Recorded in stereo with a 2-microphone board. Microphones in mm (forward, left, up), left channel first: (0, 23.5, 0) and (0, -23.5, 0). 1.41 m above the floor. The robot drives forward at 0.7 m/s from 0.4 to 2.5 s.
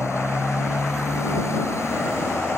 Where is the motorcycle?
80° left; by 2.6 s 75° left (ahead or behind).